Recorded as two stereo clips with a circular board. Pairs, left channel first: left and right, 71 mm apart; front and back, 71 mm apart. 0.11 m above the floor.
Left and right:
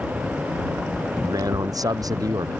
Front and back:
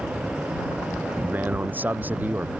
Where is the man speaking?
115° right.